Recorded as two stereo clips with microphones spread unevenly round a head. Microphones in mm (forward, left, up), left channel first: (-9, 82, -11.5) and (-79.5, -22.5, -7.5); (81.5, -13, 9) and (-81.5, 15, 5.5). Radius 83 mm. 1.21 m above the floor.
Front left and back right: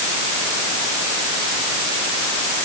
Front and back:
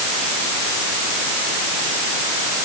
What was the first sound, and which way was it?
Only background noise.